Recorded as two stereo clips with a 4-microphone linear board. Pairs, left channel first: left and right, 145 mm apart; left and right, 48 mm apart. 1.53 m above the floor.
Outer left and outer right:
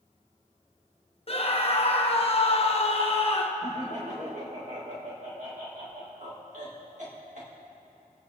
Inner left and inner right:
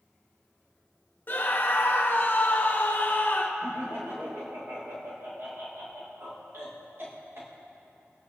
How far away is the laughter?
About 1.7 m.